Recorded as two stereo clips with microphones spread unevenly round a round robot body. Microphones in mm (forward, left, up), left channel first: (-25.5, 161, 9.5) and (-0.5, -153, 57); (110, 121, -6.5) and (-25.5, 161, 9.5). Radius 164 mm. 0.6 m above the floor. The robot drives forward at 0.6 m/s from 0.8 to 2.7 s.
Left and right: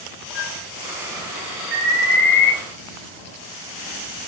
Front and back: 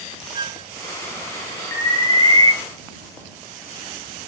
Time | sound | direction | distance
0.3 | a flute | 105° left | 0.9 m
1.7 | an alarm | 35° left | 6 m